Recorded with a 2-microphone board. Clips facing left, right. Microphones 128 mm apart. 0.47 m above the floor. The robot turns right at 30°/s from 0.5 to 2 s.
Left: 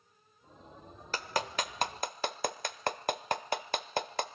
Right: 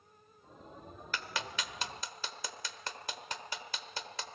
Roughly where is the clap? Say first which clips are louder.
Left 6 dB; left.